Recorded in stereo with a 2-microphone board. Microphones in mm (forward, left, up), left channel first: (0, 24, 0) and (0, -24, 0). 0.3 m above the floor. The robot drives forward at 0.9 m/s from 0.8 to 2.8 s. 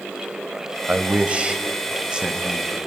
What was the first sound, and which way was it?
A man speaking, 30° right (ahead or behind).